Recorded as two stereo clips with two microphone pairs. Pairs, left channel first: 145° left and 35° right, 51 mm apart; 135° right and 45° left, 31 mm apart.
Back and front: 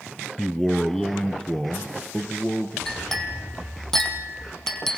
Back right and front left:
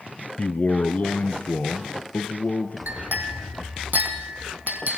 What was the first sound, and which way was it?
A man speaking, 120° right.